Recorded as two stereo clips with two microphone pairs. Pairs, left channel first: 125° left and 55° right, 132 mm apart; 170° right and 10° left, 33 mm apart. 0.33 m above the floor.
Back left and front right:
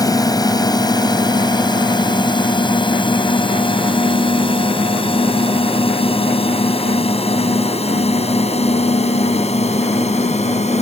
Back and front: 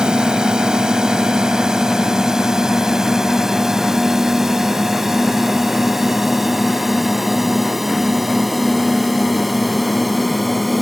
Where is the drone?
70° left; by 10.8 s 100° left.